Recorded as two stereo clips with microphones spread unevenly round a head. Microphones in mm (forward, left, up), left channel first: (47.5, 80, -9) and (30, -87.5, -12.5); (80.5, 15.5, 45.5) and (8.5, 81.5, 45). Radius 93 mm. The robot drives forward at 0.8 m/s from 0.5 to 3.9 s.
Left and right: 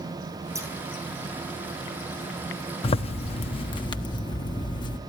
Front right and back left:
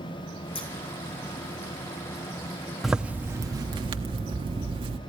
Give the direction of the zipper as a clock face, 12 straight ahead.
10 o'clock.